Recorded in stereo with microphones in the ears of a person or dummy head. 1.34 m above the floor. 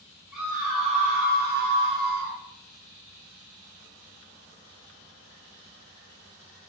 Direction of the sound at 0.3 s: 5° right (ahead or behind).